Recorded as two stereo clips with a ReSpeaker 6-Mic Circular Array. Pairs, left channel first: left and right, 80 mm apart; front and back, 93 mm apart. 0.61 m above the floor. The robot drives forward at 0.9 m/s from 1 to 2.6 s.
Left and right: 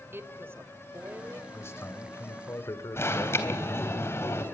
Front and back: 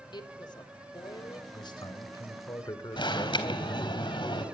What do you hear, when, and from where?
0.1 s a woman speaking: 30° right, 2.5 m; by 1.4 s 40° right, 2.5 m
1.5 s a man speaking: 30° left, 3 m; by 4.0 s 45° left, 2.5 m
3.0 s an alarm: 30° left, 3.5 m